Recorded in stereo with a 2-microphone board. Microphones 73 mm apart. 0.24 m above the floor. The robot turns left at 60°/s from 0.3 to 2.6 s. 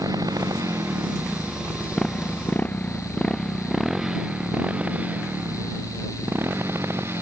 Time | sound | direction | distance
0.0 | a motorcycle | 60° right (ahead or behind) | ?